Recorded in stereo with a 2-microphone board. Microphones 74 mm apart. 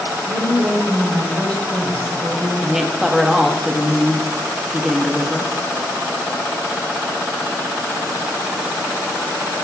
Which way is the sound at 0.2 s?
70° right (ahead or behind).